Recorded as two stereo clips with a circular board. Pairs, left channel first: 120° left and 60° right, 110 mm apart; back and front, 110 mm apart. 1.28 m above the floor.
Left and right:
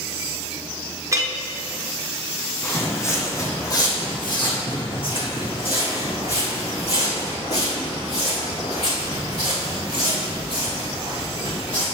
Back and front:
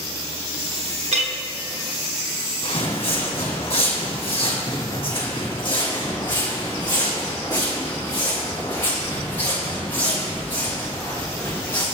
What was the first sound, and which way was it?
A clink, straight ahead.